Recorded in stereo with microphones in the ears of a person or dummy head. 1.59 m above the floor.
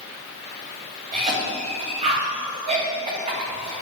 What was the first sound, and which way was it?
A cough, 40° right (ahead or behind).